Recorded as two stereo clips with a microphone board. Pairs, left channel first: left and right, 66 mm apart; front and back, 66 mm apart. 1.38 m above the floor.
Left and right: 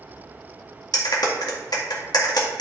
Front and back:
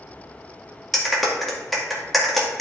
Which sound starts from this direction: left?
A clap, at 0.9 s.